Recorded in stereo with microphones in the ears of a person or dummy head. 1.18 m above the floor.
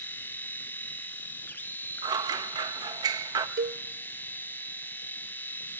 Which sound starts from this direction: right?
A cowbell, at 3.6 s.